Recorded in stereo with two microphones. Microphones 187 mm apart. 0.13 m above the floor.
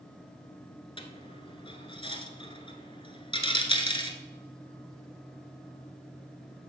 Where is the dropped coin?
30° left (ahead or behind), 1.0 m.